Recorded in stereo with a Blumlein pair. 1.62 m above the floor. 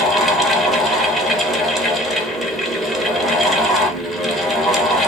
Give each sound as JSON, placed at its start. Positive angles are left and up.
{"t": 0.0, "sound": "a fan", "azimuth_deg": 0, "distance_m": 0.9}